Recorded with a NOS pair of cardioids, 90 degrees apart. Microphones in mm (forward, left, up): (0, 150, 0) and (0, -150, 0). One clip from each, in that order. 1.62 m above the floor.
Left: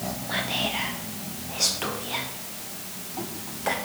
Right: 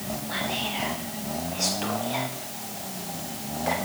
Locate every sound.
0.3 s whispering: 15° left, 0.8 m